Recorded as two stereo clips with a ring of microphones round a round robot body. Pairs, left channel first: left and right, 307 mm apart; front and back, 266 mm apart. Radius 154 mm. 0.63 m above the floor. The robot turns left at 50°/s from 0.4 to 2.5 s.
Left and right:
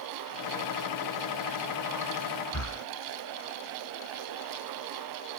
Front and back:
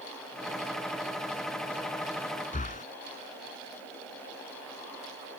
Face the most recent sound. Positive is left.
turn(degrees=60)